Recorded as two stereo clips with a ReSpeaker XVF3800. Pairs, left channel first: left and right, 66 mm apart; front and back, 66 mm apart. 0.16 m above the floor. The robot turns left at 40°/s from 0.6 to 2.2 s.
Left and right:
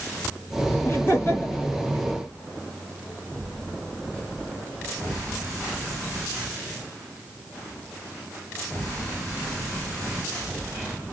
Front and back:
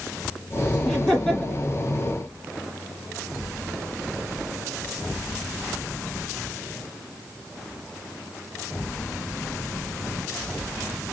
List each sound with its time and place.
0.8 s laughter: 95° left, 1.9 m; by 1.7 s 60° left, 1.9 m